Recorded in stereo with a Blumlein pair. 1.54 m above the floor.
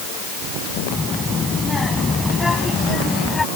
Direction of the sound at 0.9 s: 15° left.